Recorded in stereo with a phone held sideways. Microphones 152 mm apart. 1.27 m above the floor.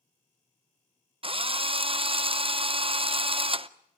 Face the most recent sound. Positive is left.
turn(degrees=-40)  # may be behind; listen again after turning